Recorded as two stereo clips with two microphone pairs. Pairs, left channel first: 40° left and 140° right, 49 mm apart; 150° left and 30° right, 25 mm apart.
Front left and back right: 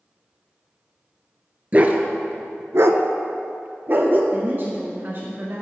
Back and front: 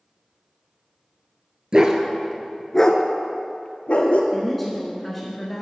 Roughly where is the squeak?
I don't hear a squeak.